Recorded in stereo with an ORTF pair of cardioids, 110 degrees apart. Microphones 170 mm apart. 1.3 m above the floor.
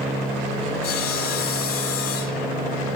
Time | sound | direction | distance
0.8 | sawing | 65° left | 8 m